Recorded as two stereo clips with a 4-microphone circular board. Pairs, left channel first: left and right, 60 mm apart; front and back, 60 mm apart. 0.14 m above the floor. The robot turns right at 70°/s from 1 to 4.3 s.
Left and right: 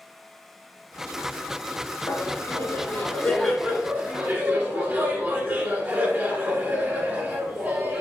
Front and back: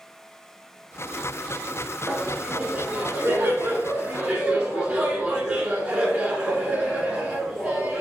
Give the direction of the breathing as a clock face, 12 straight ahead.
I don't hear breathing.